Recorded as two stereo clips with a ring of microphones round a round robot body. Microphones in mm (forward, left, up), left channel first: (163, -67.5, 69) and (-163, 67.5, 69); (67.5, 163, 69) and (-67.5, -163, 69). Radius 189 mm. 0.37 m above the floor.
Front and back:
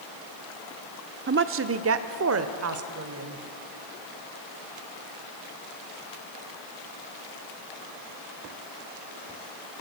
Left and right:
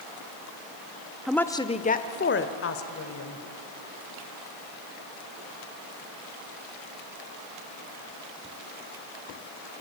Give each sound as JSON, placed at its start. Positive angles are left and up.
{"t": 1.3, "sound": "a woman speaking", "azimuth_deg": 160, "distance_m": 0.9}